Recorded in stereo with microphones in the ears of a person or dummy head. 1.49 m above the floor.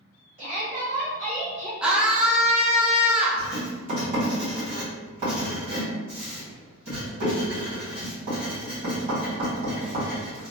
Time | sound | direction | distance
0.4 | a shout | 40° right (ahead or behind) | 1.3 m
1.8 | a scream | centre (ahead or behind) | 0.6 m
3.4 | writing | 40° right (ahead or behind) | 1.5 m